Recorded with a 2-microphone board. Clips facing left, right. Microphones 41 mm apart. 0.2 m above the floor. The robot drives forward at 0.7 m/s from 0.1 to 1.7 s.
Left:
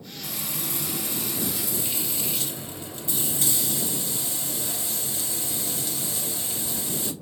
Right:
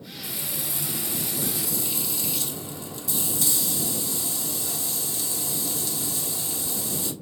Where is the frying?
50° left (ahead or behind), 0.7 m; by 7.1 s 30° left (ahead or behind), 1.1 m.